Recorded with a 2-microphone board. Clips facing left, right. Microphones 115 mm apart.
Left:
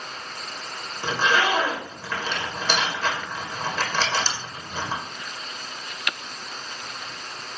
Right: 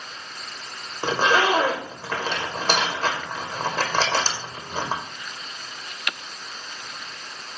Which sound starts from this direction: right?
A zipper, at 1.0 s.